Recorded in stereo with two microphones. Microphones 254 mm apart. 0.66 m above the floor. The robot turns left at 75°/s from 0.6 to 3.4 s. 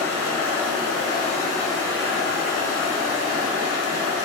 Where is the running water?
85° left, 1.8 m; by 4.2 s 125° right, 1.8 m.